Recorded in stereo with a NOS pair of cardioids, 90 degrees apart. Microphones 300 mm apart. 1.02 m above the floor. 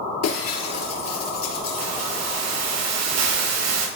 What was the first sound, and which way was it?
Breaking glass, 60° left.